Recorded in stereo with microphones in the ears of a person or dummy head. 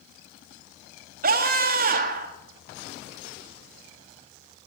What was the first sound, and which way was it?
A scream, 50° right (ahead or behind).